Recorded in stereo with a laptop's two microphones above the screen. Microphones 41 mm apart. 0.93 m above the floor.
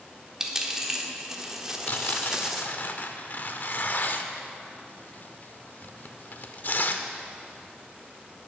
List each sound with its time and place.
0.4 s a dropped coin: 15° right (ahead or behind), 1.2 m
1.9 s tearing paper: 50° left (ahead or behind), 0.7 m